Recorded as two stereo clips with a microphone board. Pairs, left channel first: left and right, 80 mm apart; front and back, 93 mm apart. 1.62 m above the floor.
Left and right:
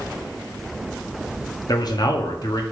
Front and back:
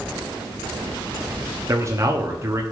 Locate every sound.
1.7 s a man speaking: 120° left, 1.1 m